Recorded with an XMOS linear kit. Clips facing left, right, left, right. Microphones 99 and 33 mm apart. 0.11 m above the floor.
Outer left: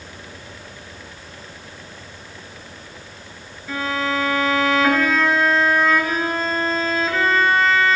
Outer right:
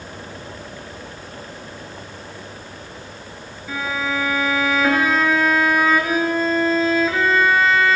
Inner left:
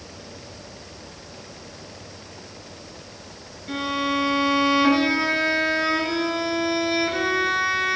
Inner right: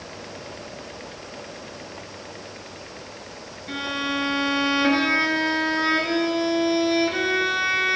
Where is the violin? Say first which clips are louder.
Outer left 1 dB, inner left 2 dB; 5° right (ahead or behind), 0.6 m.